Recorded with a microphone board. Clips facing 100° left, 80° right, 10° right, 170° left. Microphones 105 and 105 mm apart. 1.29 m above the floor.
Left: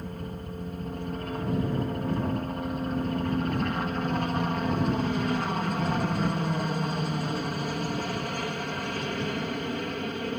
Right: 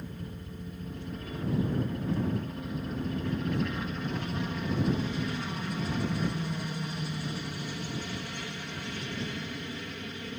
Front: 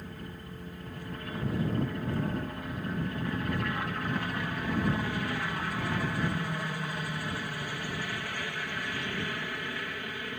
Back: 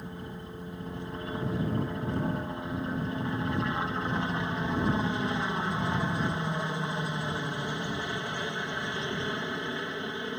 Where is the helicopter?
105° left.